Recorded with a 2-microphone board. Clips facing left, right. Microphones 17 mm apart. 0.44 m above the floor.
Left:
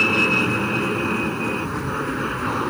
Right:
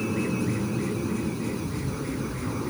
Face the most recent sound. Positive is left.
turn(degrees=75)  # may be behind; listen again after turning